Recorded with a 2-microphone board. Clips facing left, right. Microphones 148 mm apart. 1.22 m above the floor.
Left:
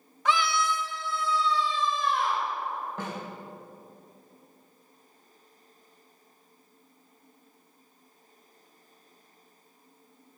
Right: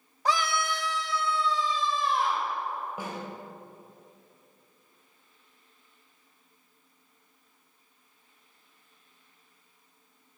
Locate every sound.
0.2 s a scream: 35° right (ahead or behind), 1.0 m; by 2.5 s 25° right (ahead or behind), 1.9 m
3.0 s a snare drum: 10° right (ahead or behind), 3 m